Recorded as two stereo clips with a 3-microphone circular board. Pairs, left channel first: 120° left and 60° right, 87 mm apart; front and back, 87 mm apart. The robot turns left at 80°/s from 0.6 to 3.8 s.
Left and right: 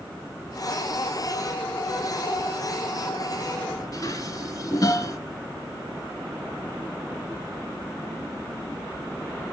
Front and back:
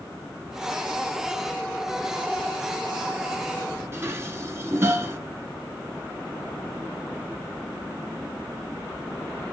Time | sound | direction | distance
3.9 | dishes clattering | 135° left | 1.1 m